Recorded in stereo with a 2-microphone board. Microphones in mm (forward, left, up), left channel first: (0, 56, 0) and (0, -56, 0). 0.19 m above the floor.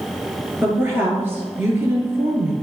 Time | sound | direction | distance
0.6 | a woman speaking | 20° right (ahead or behind) | 3 m